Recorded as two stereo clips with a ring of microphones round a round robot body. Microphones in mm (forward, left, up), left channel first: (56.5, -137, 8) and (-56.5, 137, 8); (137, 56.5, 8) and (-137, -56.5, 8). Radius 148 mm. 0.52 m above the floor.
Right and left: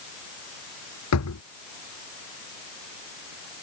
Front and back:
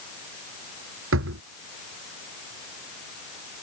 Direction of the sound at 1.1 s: 110° right.